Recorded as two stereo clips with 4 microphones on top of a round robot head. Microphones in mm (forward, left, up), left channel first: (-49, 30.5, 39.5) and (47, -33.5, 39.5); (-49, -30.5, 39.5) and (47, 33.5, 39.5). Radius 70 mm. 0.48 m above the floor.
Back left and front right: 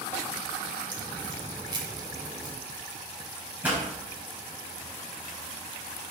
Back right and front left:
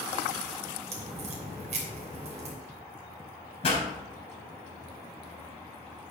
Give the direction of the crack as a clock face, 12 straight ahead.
11 o'clock.